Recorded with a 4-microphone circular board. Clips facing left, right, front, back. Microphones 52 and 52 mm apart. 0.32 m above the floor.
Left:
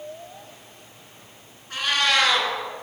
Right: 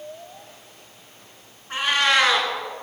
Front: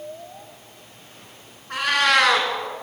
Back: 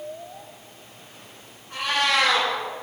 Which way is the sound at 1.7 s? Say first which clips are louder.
Right 2 dB, front 4 dB; 25° right.